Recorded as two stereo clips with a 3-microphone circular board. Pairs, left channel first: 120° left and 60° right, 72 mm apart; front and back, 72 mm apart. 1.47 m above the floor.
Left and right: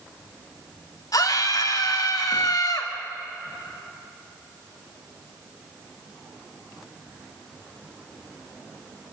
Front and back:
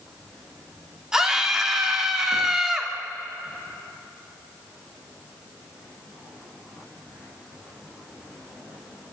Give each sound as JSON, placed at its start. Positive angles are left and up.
{"t": 1.1, "sound": "a scream", "azimuth_deg": 100, "distance_m": 3.0}